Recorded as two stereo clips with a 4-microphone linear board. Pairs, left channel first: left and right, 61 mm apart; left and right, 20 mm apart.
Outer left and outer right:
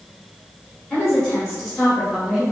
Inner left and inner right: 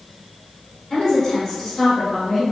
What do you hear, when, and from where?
0.9 s a woman speaking: centre (ahead or behind), 1.5 m; by 2.5 s 5° right (ahead or behind), 0.6 m